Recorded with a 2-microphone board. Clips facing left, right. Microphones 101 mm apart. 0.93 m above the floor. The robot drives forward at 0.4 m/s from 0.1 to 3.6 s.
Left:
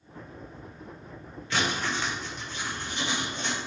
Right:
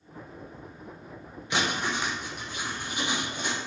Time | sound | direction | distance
1.5 | writing | 20° right (ahead or behind) | 1.1 m